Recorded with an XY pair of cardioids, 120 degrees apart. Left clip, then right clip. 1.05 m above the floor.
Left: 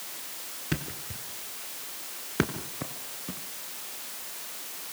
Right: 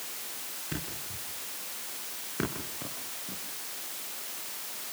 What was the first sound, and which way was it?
A thud, 50° left.